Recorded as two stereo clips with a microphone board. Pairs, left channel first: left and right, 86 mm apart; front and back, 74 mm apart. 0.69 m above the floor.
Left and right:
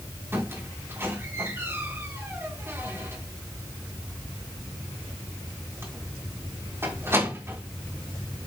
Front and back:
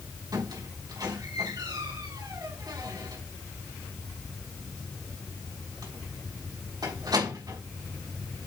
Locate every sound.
0.3 s a squeak: 150° right, 4 m